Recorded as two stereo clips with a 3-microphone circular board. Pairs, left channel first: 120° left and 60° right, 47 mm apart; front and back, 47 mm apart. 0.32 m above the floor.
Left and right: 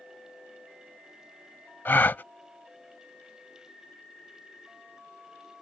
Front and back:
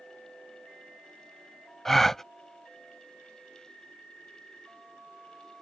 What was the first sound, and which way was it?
A gasp, 80° left.